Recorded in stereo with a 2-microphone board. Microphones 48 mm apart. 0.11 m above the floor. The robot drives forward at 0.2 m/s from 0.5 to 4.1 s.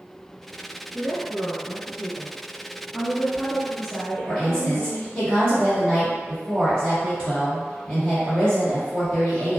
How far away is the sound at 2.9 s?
About 1.1 m.